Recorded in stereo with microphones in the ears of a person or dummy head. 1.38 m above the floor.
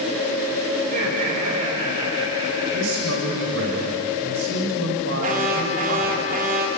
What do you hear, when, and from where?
0.8 s laughter: 50° right (ahead or behind), 4 m; by 3.5 s 30° right (ahead or behind), 3.5 m
2.7 s a man speaking: 80° right, 7.5 m
5.2 s an alarm: 50° right (ahead or behind), 3 m